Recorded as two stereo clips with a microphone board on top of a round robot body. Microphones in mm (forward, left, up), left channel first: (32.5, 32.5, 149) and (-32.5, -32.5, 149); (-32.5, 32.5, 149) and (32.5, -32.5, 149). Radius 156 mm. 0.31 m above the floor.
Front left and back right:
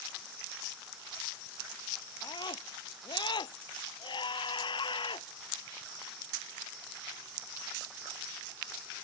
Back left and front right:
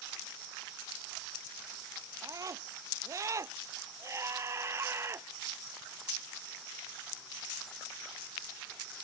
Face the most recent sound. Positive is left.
turn(degrees=15)